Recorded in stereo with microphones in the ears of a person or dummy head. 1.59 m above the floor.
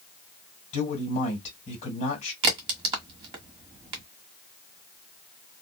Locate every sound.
0.7 s a man speaking: 35° left (ahead or behind), 1.7 m
2.4 s a crack: 35° right (ahead or behind), 1.4 m